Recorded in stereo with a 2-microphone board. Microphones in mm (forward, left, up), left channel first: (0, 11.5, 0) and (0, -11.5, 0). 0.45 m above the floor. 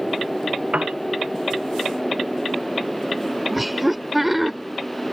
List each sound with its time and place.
0.7 s a piano: 70° right (ahead or behind)
3.5 s laughter: 10° right (ahead or behind)